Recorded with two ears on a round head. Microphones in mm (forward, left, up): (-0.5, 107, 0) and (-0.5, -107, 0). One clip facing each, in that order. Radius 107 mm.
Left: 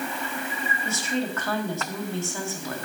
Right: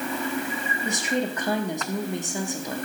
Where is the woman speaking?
15° right (ahead or behind), 1.6 m.